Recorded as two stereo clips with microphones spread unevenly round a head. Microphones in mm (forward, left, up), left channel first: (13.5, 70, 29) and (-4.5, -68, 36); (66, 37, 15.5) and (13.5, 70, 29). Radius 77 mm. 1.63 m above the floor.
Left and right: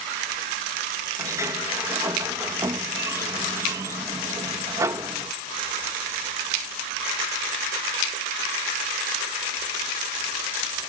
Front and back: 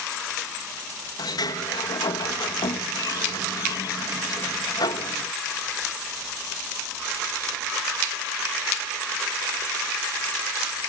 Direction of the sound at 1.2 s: 30° right.